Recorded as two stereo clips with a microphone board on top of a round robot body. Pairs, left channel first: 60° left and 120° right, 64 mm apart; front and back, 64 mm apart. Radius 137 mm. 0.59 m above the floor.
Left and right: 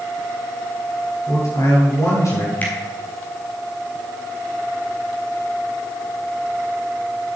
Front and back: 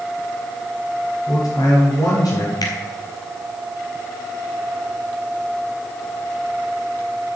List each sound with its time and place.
1.3 s a man speaking: 25° left, 9.5 m
2.6 s a finger snap: 5° right, 4 m